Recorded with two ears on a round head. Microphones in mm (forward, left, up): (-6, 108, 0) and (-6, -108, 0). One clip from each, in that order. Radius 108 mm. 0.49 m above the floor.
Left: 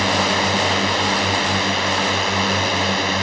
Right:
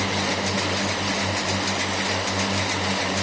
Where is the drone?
40° left (ahead or behind); by 3.2 s 35° left (ahead or behind).